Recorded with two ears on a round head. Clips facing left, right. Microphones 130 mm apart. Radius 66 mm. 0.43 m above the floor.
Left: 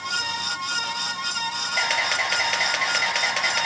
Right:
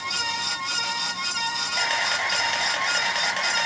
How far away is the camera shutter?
About 3.5 m.